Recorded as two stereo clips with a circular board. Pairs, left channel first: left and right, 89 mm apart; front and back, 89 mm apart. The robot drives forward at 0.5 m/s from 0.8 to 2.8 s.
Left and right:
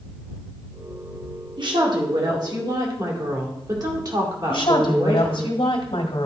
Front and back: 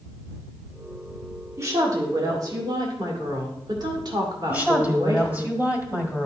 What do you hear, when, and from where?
1.6 s a woman speaking: 120° right, 1.8 m; by 5.5 s 135° right, 2 m
4.5 s a woman speaking: 110° left, 1.6 m